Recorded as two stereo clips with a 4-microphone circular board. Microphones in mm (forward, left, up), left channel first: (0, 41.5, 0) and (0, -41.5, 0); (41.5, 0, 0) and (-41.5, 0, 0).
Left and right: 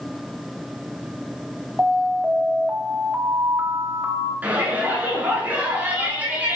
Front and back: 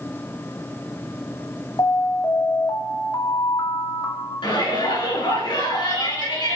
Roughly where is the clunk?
No clunk in this recording.